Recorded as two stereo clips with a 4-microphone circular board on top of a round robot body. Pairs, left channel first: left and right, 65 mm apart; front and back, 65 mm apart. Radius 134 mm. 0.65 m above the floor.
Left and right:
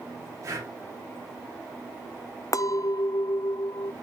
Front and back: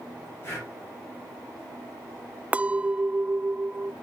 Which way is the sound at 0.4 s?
50° right.